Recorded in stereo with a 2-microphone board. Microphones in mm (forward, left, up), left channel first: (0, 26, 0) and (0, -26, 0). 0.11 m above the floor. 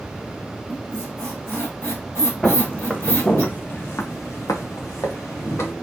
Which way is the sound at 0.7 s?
55° left (ahead or behind).